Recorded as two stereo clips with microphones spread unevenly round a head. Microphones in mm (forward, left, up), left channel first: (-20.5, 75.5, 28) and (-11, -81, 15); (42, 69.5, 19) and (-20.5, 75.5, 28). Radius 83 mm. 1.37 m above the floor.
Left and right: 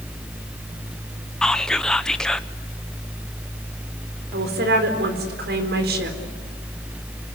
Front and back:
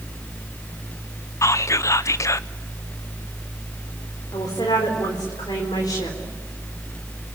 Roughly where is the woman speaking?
Ahead right.